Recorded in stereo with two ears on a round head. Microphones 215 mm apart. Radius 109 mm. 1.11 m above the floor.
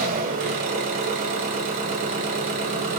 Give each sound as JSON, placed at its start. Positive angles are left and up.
{"t": 0.0, "sound": "an engine running", "side_deg": -40, "distance_m": 1.9}